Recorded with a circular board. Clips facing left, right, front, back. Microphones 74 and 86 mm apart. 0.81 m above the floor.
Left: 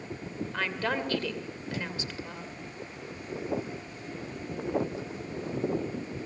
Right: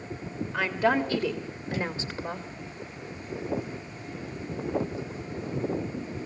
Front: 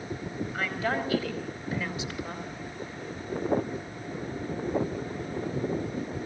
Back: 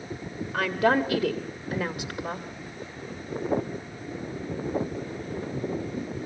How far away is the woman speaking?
About 2.5 m.